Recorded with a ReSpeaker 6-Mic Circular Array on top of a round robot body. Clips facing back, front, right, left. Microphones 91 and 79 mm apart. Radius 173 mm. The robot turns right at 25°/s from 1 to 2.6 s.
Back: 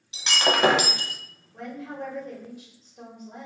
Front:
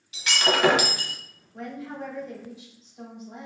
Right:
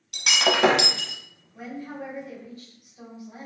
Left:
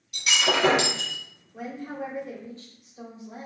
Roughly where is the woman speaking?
Behind left.